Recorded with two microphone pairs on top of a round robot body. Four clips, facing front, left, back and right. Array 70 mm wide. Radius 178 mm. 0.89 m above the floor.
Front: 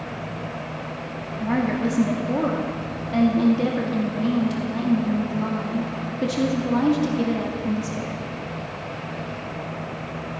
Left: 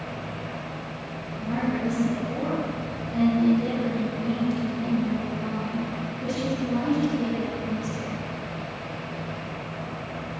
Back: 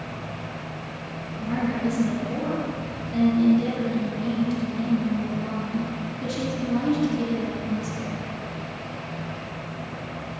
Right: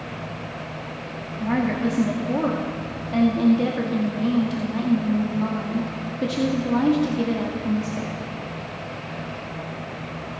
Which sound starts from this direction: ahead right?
A woman speaking, at 1.4 s.